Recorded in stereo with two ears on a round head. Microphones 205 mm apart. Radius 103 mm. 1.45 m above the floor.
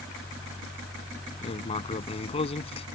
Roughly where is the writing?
Left.